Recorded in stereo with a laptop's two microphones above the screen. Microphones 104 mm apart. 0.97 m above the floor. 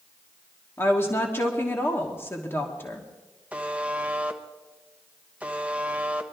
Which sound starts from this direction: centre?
A buzzer, at 3.5 s.